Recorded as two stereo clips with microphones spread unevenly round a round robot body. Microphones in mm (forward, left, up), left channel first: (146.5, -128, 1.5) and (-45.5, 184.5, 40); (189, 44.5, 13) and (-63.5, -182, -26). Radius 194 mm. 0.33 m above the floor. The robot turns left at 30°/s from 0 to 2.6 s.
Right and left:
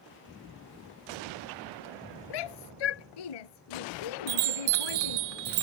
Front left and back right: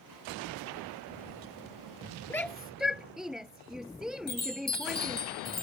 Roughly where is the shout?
Ahead right.